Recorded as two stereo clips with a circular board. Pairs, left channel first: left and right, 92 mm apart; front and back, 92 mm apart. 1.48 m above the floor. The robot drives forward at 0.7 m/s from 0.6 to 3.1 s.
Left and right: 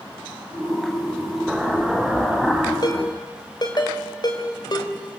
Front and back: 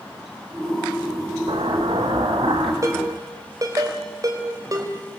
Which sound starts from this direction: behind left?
A ringtone, at 2.8 s.